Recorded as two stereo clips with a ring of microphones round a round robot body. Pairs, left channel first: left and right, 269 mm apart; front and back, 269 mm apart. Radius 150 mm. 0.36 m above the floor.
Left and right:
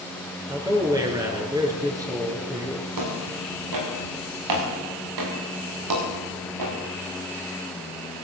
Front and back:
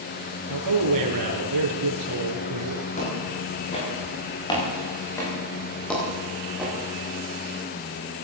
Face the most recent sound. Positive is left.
turn(degrees=-95)